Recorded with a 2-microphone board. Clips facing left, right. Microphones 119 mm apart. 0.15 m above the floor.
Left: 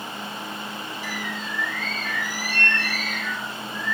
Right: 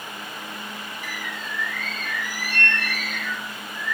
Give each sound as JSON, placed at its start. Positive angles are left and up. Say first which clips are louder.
{"t": 1.0, "sound": "a bird", "louder": "left 3 dB", "side_deg": -55, "distance_m": 3.0}